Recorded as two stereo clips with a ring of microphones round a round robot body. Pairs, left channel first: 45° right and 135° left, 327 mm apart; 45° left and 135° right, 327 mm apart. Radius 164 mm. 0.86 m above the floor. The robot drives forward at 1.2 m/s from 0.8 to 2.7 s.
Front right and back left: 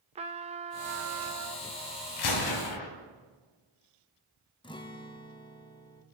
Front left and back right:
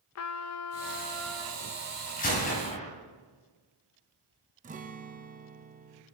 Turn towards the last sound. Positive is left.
turn(degrees=-100)